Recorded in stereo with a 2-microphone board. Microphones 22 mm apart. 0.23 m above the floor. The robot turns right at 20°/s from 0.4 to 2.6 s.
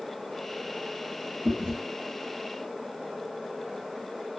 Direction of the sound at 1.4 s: 65° right (ahead or behind).